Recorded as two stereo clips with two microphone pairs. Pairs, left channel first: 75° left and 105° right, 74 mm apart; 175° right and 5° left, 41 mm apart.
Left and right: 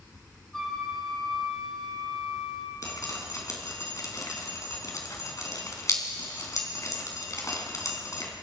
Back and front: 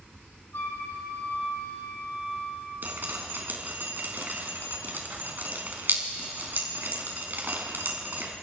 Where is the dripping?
35° left, 3.5 m.